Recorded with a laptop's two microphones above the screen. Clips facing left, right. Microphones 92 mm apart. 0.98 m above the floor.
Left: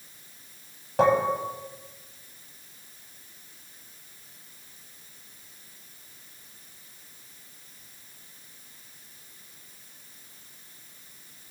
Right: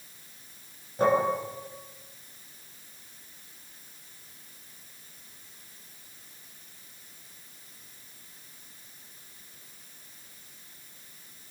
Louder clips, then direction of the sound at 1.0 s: Left 2 dB; 80° left.